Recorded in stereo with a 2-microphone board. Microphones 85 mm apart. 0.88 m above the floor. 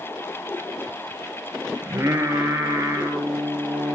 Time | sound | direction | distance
1.8 | singing | 30° right (ahead or behind) | 4.5 m